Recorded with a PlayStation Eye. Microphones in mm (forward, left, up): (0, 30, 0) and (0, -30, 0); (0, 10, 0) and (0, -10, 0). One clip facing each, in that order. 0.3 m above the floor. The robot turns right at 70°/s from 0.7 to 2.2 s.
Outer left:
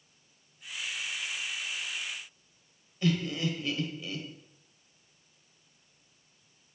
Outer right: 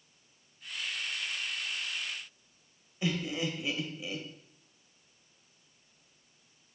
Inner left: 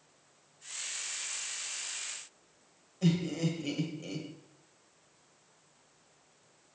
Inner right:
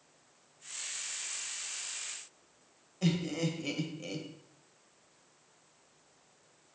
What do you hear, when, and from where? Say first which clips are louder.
3.0 s laughter: outer left 3 dB, inner left 1 dB; 15° right (ahead or behind), 1.1 m